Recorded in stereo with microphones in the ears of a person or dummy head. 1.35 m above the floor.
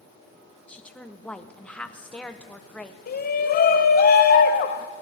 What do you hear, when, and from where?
0.7 s a woman speaking: 5° left (ahead or behind), 1.0 m
3.1 s a shout: 45° left (ahead or behind), 1.2 m